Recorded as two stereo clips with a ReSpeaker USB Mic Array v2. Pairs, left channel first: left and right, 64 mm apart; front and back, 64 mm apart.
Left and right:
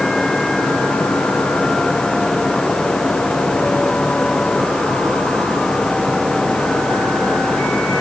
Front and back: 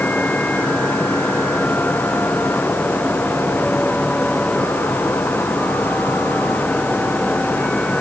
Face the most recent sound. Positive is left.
No sound to turn to.